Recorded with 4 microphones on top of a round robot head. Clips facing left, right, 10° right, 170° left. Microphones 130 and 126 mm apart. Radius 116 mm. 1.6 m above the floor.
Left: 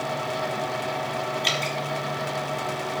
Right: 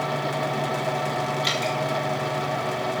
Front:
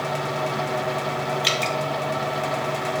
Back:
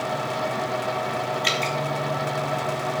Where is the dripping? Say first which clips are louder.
Right 2 dB, front 1 dB; 45° left, 0.7 m.